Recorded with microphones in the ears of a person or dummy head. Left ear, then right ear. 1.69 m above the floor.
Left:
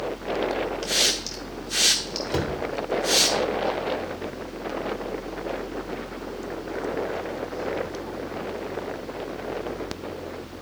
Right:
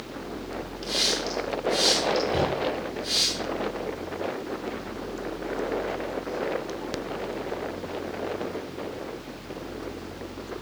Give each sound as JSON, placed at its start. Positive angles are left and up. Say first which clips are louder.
{"t": 0.8, "sound": "a hiss", "louder": "left 1 dB", "side_deg": 40, "distance_m": 0.7}
{"t": 2.3, "sound": "a cupboard door", "louder": "right 2 dB", "side_deg": 55, "distance_m": 1.1}